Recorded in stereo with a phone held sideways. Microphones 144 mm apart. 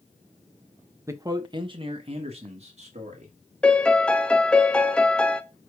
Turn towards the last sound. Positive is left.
turn(degrees=5)  # may be behind; listen again after turning